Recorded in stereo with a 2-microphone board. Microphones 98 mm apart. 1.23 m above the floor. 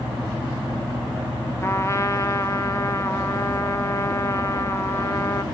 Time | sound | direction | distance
1.6 | a trumpet | 30° left (ahead or behind) | 1.0 m